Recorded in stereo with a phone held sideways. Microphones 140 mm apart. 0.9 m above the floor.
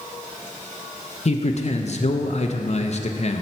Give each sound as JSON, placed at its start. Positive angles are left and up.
{"t": 1.2, "sound": "a man speaking", "side_deg": 55, "distance_m": 0.5}